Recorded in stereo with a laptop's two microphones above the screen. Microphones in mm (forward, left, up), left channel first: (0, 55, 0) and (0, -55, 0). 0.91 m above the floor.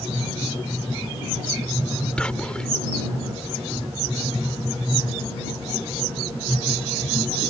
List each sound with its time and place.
2.2 s whispering: 10° left (ahead or behind)